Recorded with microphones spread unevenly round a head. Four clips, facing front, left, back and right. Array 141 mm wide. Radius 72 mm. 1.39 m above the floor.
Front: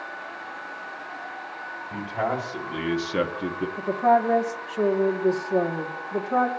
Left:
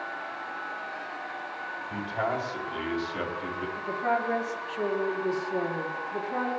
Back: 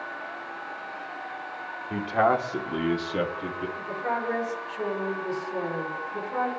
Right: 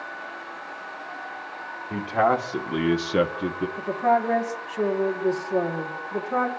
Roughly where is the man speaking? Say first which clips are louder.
Right 9 dB, back 5 dB; behind right.